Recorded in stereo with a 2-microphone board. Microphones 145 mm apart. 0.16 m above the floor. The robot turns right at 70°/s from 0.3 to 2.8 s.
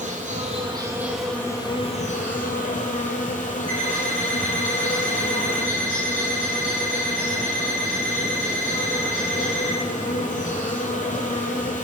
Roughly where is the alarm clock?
Left.